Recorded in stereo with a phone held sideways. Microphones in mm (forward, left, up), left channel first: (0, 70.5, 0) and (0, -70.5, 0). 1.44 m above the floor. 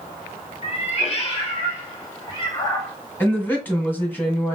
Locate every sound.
0.6 s a cat meowing: 50° left (ahead or behind), 1.5 m; by 2.9 s 20° left (ahead or behind), 1.7 m
3.2 s a woman speaking: 10° left (ahead or behind), 1.6 m